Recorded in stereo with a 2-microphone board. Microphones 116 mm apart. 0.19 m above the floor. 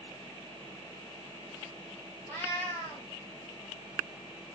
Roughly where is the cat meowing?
Left.